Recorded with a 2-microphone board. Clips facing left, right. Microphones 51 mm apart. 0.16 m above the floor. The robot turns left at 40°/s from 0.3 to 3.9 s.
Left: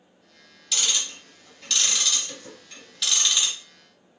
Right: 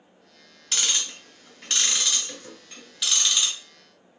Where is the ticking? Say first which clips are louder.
Even; 45° right (ahead or behind), 1.5 m; by 3.5 s 5° left (ahead or behind), 1.5 m.